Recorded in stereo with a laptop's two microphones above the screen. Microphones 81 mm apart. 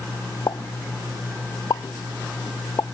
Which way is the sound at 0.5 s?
50° left (ahead or behind).